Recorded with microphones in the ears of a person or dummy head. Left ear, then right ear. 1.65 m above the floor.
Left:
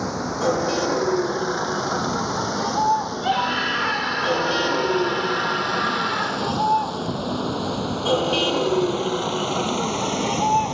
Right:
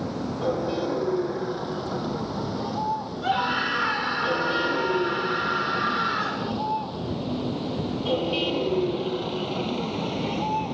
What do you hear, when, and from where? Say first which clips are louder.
0.0 s a vehicle: left 5 dB; 60° left (ahead or behind); by 10.8 s 55° left (ahead or behind)
3.2 s a scream: right 1 dB; 15° left (ahead or behind)